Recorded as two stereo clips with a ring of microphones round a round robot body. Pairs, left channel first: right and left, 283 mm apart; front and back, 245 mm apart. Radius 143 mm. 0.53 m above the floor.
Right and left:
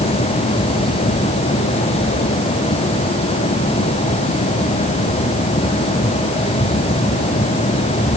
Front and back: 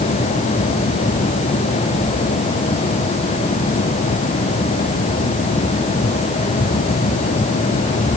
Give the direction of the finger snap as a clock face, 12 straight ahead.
No finger snap in this recording.